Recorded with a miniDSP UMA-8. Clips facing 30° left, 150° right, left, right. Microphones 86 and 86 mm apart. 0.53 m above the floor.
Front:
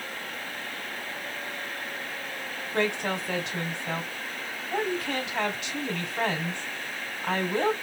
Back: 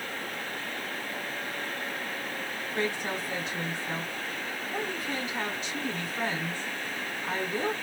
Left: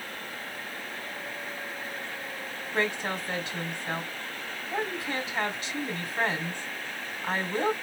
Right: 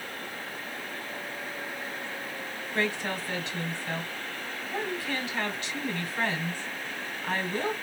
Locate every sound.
2.7 s a woman speaking: 20° left, 2.5 m